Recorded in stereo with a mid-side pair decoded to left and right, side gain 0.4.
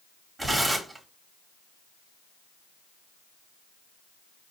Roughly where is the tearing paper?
Ahead right.